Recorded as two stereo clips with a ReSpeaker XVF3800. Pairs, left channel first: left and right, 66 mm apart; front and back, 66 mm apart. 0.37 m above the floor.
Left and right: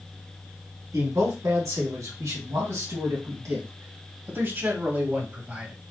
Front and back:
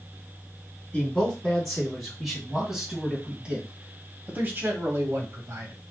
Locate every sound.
0.9 s a man speaking: 80° right, 3 m; by 5.7 s 155° right, 1.9 m